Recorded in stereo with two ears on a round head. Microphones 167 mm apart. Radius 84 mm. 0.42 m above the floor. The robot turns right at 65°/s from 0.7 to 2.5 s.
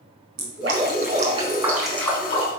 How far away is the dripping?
About 4.5 m.